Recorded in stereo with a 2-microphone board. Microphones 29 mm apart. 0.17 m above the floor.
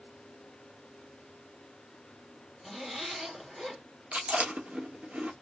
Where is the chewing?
65° right (ahead or behind), 1.4 m.